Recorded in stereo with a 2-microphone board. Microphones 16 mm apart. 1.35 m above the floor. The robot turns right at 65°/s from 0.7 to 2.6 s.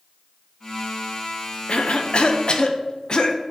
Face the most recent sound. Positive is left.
turn(degrees=130)